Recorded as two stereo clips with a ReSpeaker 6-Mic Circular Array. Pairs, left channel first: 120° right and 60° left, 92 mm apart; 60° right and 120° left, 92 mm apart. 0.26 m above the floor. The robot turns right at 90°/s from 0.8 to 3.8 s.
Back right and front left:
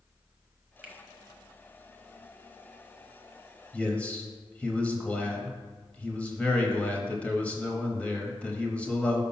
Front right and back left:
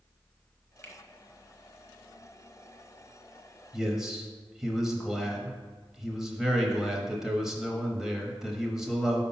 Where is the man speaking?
170° right, 0.9 m; by 9.2 s 165° right, 0.9 m.